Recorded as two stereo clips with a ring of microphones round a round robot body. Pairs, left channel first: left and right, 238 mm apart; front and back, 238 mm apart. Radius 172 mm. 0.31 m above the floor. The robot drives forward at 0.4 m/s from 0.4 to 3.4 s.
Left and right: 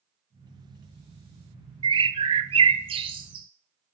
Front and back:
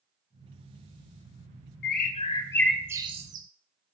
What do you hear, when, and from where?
1.8 s a bird: 25° right, 0.6 m; by 3.5 s 150° right, 0.5 m